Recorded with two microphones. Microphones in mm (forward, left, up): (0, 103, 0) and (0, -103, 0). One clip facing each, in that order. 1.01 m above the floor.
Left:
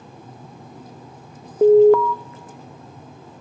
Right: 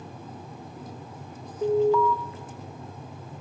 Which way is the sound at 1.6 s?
65° left (ahead or behind).